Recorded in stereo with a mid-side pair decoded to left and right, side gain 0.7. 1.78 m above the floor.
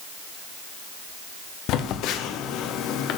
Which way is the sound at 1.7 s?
60° left.